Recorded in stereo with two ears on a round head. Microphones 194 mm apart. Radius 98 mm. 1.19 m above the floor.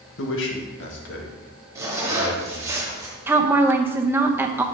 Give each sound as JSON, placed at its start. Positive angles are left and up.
{"t": 0.2, "sound": "a man speaking", "side_deg": 65, "distance_m": 1.5}
{"t": 1.8, "sound": "a zipper", "side_deg": -15, "distance_m": 2.0}
{"t": 3.3, "sound": "a woman speaking", "side_deg": -10, "distance_m": 0.8}